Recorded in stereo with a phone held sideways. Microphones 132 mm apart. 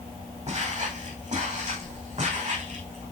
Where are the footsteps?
55° right (ahead or behind), 5 m; by 3.0 s 60° right (ahead or behind), 6.5 m.